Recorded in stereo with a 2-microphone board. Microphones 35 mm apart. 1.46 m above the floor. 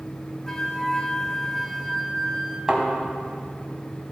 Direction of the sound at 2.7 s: 15° right (ahead or behind).